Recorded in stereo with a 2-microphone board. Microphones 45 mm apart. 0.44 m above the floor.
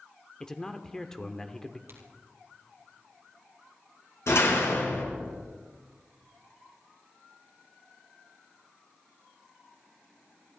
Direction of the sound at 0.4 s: 10° left (ahead or behind).